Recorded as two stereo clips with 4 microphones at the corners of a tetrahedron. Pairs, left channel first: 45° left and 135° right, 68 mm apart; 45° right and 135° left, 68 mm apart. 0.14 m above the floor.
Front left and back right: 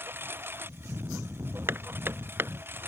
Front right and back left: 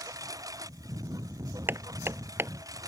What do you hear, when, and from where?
0.0 s a lawn mower: 165° left
1.7 s hammering: straight behind